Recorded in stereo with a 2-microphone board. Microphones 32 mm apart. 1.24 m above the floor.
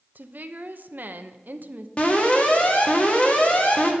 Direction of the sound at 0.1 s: 55° right (ahead or behind).